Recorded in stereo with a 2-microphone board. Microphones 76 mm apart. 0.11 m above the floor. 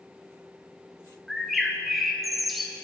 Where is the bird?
Centre (ahead or behind), 0.8 m.